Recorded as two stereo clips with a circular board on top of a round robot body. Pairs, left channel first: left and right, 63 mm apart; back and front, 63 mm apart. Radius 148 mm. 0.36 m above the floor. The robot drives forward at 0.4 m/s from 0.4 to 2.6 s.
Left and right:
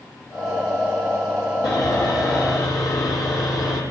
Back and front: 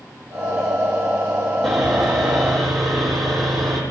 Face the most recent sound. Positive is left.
turn(degrees=90)